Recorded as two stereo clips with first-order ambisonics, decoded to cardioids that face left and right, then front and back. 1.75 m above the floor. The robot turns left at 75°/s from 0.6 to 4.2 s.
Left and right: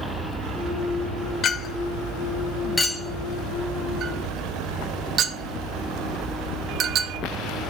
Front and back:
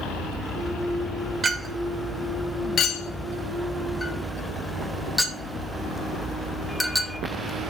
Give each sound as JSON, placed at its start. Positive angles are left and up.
{"t": 1.4, "sound": "a clink", "azimuth_deg": 125, "distance_m": 0.7}